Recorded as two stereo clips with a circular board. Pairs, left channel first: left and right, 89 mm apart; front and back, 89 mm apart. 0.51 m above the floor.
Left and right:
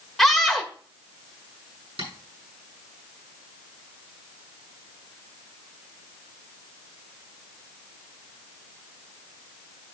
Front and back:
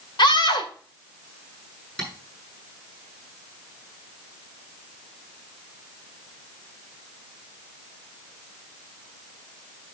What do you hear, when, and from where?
0.2 s a scream: 5° left, 1.6 m
2.0 s tapping: 85° right, 6.5 m